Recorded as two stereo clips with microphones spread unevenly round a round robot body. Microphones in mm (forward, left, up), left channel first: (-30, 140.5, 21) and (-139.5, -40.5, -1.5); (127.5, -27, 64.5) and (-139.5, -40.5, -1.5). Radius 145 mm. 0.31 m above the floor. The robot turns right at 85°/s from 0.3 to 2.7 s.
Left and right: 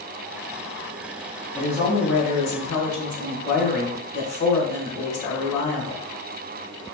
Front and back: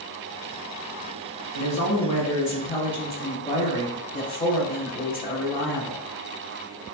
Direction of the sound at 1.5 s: 20° right.